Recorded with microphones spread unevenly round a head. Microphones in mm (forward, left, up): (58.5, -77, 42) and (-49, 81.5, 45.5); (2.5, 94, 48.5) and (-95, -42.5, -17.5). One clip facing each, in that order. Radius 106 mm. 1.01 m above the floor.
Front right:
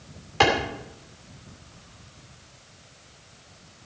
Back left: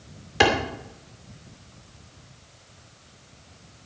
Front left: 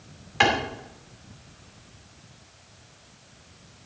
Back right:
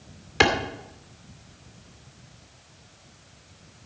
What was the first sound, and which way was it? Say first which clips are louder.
A clap: back left 1 dB, back right 1 dB; 160° right.